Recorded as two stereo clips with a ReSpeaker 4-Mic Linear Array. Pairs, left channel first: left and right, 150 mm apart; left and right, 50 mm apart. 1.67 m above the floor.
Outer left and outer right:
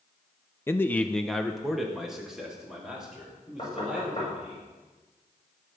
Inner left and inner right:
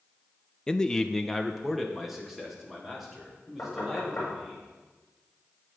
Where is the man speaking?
15° left (ahead or behind), 0.5 m; by 4.6 s 5° right (ahead or behind), 5.5 m.